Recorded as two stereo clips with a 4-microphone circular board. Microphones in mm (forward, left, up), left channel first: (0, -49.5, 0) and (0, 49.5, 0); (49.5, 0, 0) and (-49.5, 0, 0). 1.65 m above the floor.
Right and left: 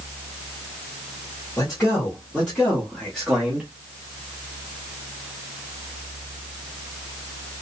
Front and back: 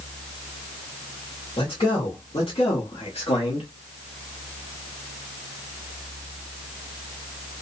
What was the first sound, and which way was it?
A man speaking, 20° right.